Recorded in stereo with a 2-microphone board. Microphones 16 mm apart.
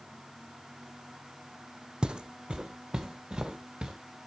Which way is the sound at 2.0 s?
60° right (ahead or behind).